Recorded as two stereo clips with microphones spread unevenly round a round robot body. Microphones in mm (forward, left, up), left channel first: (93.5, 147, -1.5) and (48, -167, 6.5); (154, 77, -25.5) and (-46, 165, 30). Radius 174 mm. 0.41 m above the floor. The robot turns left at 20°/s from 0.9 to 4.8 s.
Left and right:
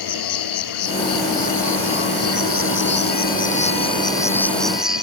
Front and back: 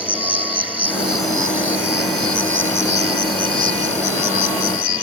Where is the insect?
70° left; by 5.0 s 10° right.